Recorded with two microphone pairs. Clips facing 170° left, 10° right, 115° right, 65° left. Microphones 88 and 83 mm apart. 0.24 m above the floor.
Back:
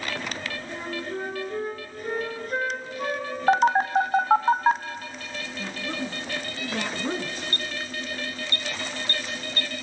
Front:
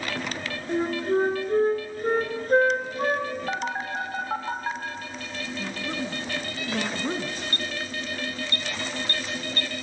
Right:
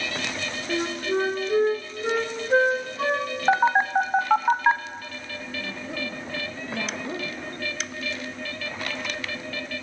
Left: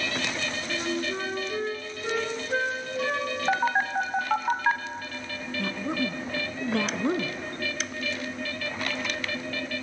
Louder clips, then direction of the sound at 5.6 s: Even, left 6 dB; 75° left.